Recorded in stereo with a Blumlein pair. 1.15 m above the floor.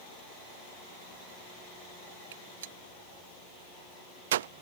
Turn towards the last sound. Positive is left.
turn(degrees=-60)